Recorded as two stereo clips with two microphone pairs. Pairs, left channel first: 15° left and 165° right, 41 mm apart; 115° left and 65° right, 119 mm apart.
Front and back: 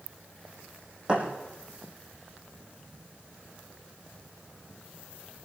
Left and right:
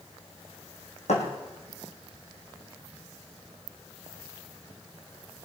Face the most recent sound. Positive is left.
turn(degrees=135)